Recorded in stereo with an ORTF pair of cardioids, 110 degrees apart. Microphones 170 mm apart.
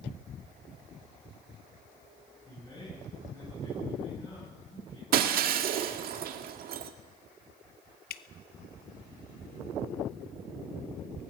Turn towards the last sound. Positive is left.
turn(degrees=65)